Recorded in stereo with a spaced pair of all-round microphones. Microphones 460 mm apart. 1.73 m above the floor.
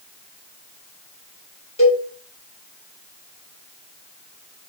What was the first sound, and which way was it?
A cowbell, 15° left (ahead or behind).